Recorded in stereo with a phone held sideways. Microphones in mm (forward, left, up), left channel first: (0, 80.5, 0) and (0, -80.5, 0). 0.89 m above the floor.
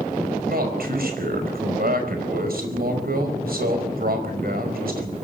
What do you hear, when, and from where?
0.5 s a man speaking: 75° right (ahead or behind), 5 m